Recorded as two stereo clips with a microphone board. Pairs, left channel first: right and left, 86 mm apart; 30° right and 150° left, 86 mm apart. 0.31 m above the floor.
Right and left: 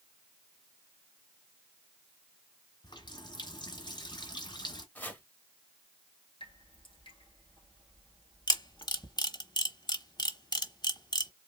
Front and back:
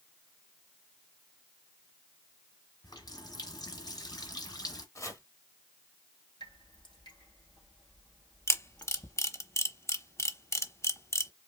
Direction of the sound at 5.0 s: 35° right.